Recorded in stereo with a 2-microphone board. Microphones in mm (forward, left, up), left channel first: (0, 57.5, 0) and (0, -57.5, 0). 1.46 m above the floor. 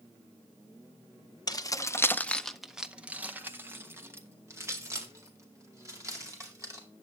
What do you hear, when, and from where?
1.5 s keys jangling: 35° left (ahead or behind), 0.6 m; by 6.9 s 25° right (ahead or behind), 3 m